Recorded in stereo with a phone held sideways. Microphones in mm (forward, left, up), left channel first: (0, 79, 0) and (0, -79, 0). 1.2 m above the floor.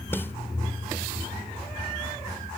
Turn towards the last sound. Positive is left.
turn(degrees=15)  # may be behind; listen again after turning